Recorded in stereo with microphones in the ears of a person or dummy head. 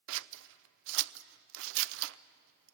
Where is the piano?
I don't hear a piano.